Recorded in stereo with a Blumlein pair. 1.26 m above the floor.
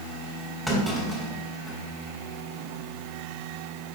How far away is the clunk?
About 3 m.